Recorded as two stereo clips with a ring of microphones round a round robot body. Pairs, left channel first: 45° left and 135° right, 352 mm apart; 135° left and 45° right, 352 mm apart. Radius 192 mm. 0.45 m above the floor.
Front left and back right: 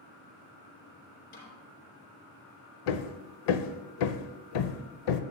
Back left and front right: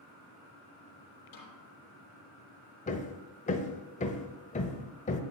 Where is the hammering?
65° left, 0.7 m.